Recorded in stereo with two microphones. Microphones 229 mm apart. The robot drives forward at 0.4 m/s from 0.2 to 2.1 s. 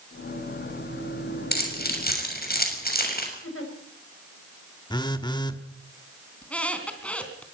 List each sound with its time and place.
1.5 s keys jangling: 45° left (ahead or behind), 6 m; by 3.3 s 40° left (ahead or behind), 6 m
3.4 s a giggle: 65° left (ahead or behind), 5.5 m
4.9 s a phone buzzing: 20° left (ahead or behind), 1.5 m
6.4 s a squeak: 5° left (ahead or behind), 3.5 m